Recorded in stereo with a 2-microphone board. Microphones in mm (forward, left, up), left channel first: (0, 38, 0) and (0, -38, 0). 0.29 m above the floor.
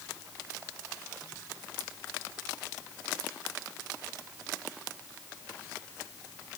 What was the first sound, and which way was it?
Only background noise.